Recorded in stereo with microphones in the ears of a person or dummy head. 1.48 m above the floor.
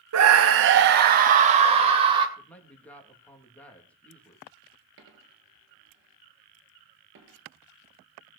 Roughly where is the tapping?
No tapping in this recording.